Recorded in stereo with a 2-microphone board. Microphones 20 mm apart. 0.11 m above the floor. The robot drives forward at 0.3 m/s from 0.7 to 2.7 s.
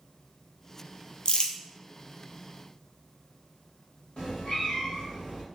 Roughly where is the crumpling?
Left.